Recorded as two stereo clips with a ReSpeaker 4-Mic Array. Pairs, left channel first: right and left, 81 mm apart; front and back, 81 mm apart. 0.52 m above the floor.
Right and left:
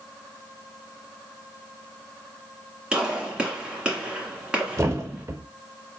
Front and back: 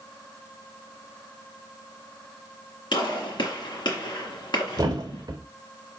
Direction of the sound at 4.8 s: 145° left.